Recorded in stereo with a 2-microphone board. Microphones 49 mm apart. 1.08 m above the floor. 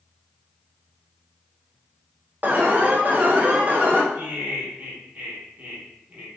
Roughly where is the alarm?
Right.